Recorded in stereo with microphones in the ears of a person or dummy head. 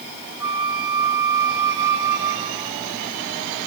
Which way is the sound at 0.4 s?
15° right (ahead or behind).